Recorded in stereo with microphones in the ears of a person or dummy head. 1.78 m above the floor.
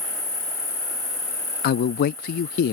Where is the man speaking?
55° left (ahead or behind).